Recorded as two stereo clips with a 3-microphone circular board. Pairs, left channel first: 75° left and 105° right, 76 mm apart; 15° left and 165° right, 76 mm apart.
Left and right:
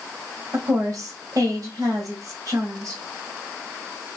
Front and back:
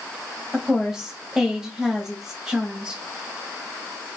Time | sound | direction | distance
0.5 | a woman speaking | 85° right | 1.6 m